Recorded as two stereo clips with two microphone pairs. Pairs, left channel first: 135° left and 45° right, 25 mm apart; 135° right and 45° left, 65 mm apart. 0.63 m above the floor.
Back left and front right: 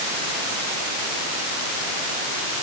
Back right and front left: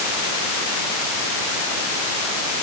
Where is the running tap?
I don't hear a running tap.